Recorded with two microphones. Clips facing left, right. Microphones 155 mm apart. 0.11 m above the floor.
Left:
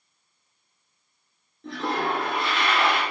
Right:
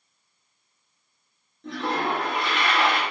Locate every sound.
1.6 s a toilet flushing: centre (ahead or behind), 2 m